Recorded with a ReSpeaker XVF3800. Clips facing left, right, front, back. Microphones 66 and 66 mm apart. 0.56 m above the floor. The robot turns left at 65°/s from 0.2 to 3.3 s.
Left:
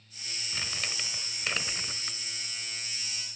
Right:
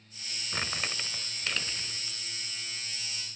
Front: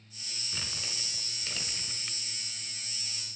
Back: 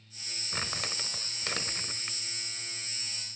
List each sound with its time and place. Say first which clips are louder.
0.5 s crumpling: right 3 dB, back 6 dB; 130° right, 1.1 m; by 2.2 s 120° left, 1.1 m